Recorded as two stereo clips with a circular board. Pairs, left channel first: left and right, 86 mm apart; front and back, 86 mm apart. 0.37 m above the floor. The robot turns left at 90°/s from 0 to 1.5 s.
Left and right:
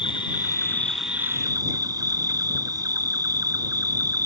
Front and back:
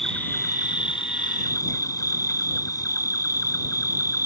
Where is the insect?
90° left; by 4.3 s 45° right.